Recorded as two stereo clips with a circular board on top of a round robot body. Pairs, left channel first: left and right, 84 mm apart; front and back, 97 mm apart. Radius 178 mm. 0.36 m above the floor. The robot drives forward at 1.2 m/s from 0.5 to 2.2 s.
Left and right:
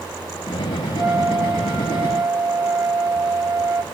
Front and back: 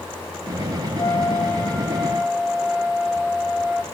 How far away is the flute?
About 1.8 m.